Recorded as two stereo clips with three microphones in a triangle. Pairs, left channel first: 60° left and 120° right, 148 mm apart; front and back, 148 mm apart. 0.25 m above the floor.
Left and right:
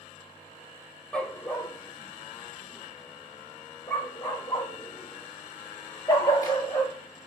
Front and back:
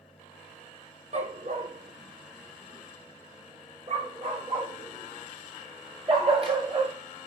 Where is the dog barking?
145° left, 2 m; by 6.9 s 130° left, 7 m.